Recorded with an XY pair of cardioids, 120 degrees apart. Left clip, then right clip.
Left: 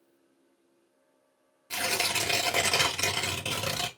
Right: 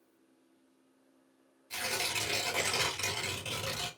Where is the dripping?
I don't hear dripping.